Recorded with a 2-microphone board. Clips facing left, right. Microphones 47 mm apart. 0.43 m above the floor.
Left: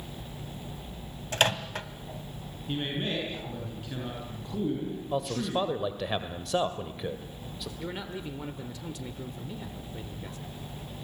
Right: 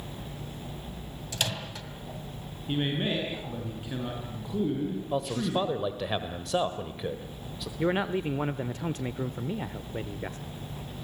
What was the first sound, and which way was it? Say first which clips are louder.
A microwave: left 7 dB; 45° left (ahead or behind).